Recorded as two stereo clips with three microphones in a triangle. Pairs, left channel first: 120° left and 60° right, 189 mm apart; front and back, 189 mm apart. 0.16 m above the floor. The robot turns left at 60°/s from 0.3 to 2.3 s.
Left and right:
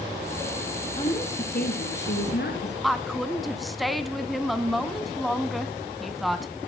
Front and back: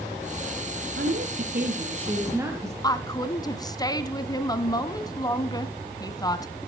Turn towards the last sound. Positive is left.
turn(degrees=30)